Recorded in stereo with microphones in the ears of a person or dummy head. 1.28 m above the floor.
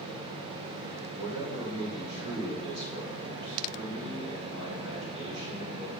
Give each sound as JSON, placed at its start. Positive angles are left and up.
{"t": 1.1, "sound": "a man speaking", "side_deg": -35, "distance_m": 1.6}